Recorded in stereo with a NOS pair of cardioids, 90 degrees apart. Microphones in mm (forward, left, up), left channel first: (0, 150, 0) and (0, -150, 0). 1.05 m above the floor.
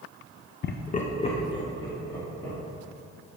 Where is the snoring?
No snoring in this recording.